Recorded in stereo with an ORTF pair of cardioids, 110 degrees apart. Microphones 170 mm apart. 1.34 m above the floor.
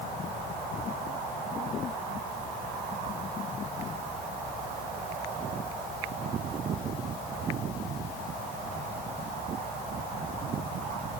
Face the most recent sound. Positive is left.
No sound to turn to.